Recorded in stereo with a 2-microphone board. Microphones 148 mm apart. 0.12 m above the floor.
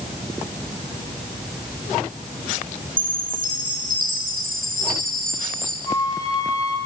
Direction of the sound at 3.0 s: 70° right (ahead or behind).